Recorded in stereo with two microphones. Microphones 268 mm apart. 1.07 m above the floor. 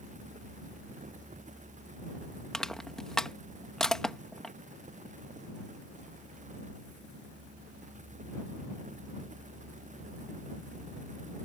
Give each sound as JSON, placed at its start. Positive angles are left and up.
{"t": 2.5, "sound": "crushing", "side_deg": 0}